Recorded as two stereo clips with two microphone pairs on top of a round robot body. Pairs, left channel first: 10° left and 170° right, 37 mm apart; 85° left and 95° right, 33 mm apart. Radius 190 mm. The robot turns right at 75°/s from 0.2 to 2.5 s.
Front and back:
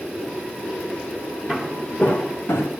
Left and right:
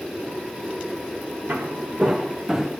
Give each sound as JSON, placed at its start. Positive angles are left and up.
{"t": 1.5, "sound": "footsteps", "azimuth_deg": -65, "distance_m": 2.5}